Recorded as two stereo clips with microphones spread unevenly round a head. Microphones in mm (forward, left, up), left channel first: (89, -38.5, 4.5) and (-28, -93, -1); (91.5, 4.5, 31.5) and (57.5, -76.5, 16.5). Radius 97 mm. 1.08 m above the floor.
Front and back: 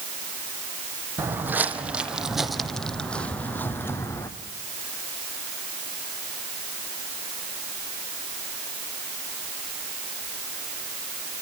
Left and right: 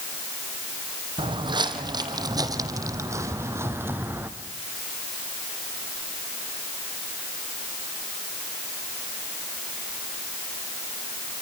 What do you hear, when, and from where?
1.2 s footsteps: 85° right, 3 m; by 4.3 s 40° right, 3 m